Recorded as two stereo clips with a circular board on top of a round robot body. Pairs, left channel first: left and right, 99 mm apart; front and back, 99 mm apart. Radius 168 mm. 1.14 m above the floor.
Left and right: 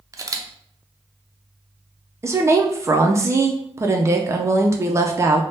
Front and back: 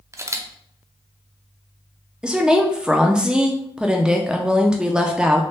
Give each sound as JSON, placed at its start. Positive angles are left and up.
{"t": 0.1, "sound": "a camera shutter", "azimuth_deg": -135, "distance_m": 0.6}
{"t": 2.2, "sound": "a woman speaking", "azimuth_deg": -105, "distance_m": 0.6}